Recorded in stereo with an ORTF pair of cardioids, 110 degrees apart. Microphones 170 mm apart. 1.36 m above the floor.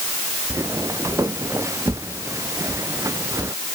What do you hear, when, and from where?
0.5 s footsteps: 15° right